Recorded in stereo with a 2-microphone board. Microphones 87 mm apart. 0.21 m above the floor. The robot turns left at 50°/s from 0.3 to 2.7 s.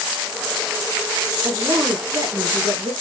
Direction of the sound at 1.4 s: 25° right.